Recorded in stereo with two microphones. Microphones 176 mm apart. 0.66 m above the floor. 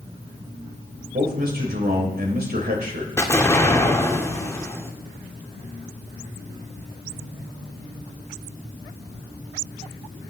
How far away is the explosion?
About 1.5 m.